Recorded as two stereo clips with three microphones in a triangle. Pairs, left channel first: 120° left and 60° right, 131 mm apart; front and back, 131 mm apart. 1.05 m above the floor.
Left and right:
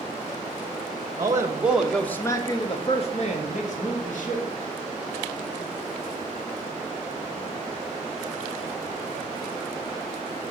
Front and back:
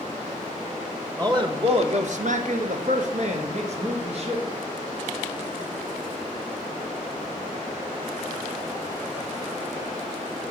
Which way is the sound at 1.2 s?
120° right.